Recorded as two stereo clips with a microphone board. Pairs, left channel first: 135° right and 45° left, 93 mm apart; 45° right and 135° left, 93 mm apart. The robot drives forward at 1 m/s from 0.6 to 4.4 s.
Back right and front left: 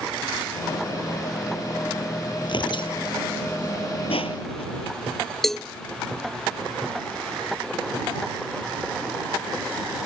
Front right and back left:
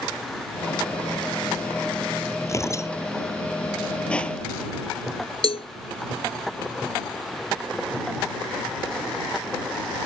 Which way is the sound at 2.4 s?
105° right.